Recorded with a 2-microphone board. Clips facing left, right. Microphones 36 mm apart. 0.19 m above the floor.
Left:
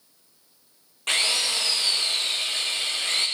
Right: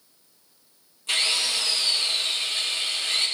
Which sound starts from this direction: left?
A drill, at 1.1 s.